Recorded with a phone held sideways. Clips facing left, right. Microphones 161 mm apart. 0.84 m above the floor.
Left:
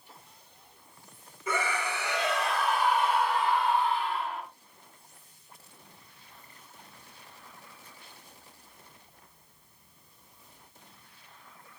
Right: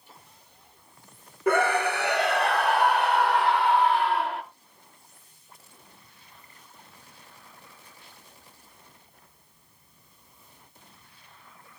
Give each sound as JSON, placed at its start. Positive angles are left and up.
{"t": 1.5, "sound": "a scream", "side_deg": -60, "distance_m": 3.0}